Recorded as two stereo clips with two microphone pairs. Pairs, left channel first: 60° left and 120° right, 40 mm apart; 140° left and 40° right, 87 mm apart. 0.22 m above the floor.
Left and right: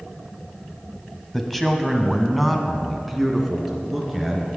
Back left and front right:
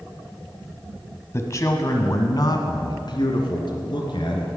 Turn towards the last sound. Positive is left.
turn(degrees=155)